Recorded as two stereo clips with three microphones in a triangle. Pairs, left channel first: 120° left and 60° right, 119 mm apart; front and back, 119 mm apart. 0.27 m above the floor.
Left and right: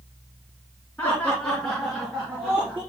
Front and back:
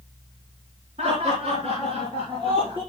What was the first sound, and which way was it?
Laughter, 170° right.